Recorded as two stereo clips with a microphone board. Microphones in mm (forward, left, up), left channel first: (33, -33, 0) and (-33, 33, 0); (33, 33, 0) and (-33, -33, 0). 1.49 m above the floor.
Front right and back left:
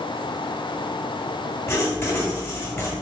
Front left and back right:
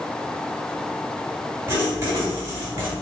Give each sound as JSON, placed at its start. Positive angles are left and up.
{"t": 1.7, "sound": "writing", "azimuth_deg": -90, "distance_m": 1.5}